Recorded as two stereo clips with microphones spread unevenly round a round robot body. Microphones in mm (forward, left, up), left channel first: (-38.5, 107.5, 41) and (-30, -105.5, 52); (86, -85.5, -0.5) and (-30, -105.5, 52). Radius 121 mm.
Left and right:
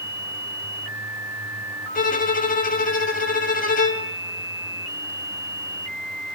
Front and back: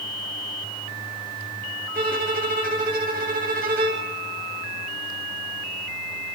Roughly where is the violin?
Behind left.